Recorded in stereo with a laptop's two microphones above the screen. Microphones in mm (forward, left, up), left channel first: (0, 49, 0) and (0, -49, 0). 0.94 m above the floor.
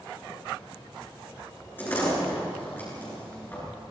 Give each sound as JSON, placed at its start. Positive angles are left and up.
{"t": 1.8, "sound": "a door slam", "side_deg": 20, "distance_m": 9.5}